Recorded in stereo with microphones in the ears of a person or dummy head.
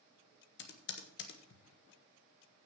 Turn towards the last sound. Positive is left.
turn(degrees=60)  # may be behind; listen again after turning